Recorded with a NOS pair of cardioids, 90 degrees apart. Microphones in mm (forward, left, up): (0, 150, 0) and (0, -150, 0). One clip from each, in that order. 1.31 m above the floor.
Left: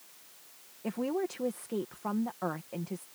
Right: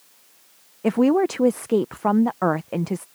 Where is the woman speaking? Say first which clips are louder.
Right 14 dB; 65° right.